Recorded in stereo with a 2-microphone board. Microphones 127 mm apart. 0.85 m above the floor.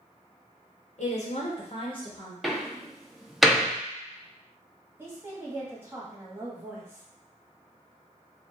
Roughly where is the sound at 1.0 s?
Left.